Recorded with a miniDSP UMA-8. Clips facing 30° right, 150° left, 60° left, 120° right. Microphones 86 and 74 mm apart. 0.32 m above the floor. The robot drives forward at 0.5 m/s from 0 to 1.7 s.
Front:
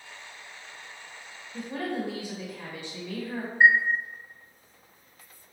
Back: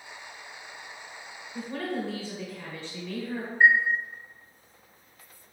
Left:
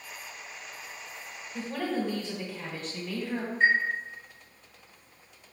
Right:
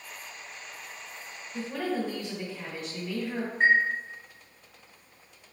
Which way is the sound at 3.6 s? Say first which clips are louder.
Front 1 dB, right 2 dB; 100° right.